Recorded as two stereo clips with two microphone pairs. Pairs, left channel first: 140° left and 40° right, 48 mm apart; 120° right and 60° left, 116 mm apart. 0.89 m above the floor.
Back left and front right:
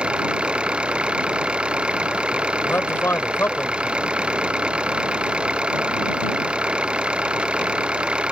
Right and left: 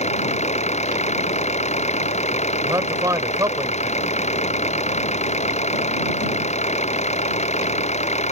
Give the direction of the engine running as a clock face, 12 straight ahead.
4 o'clock.